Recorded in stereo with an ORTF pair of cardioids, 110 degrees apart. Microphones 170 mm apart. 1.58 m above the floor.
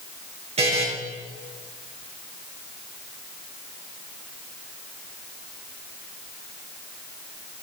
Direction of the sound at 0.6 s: 40° right.